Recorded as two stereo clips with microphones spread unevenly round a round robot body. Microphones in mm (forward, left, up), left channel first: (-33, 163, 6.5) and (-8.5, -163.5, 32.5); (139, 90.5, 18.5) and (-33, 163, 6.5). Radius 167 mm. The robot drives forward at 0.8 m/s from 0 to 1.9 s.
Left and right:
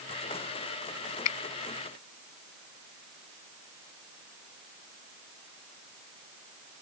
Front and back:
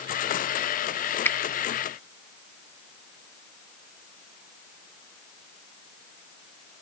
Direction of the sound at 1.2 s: 55° left.